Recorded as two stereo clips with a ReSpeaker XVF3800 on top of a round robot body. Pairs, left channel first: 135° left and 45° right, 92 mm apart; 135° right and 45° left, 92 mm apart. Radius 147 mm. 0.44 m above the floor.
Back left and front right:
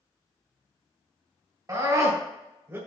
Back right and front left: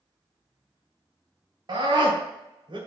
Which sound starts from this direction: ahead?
A scream, at 1.7 s.